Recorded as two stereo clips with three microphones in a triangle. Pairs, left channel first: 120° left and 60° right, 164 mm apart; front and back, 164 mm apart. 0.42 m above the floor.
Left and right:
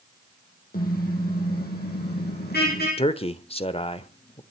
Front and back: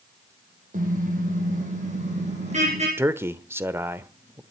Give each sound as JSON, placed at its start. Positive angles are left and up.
{"t": 0.7, "sound": "a car horn", "azimuth_deg": 145, "distance_m": 5.5}
{"t": 3.0, "sound": "a man speaking", "azimuth_deg": 115, "distance_m": 1.1}